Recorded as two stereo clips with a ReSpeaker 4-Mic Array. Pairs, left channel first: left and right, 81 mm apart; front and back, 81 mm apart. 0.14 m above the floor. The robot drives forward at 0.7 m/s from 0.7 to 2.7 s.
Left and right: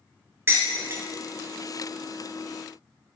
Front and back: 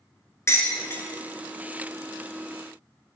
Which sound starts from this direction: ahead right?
Dishes clattering, at 0.5 s.